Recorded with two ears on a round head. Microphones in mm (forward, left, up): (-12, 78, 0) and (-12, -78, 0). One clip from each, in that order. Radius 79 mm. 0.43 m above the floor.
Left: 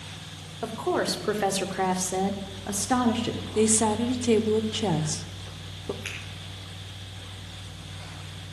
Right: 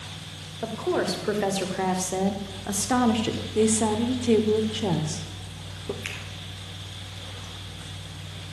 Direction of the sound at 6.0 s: 15° right (ahead or behind).